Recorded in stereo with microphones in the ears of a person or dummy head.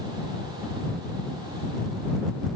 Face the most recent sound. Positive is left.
No sound to turn to.